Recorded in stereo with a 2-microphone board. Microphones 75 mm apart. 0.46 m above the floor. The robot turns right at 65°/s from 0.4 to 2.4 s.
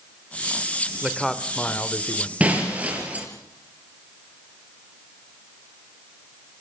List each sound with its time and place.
1.0 s a man speaking: 15° right, 1.7 m; by 2.3 s 70° left, 1.7 m
2.4 s breaking glass: 20° right (ahead or behind), 4.5 m